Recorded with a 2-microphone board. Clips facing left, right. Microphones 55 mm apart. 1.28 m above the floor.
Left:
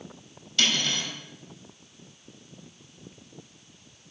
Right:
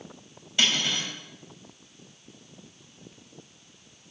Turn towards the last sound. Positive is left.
turn(degrees=-20)  # may be behind; listen again after turning